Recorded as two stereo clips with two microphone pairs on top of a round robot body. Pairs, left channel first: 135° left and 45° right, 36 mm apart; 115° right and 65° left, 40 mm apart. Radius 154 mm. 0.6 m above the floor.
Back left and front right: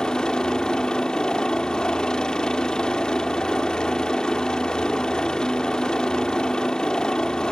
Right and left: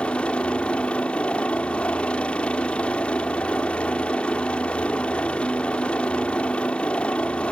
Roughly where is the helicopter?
Behind.